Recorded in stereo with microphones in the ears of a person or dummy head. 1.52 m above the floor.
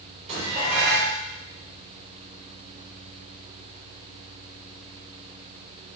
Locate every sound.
0.3 s dishes clattering: 35° right (ahead or behind), 4.5 m